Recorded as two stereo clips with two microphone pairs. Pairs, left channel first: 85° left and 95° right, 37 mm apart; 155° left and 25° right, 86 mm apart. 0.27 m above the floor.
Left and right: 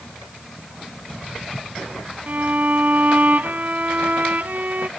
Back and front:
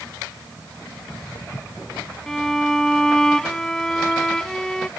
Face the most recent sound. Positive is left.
turn(degrees=-125)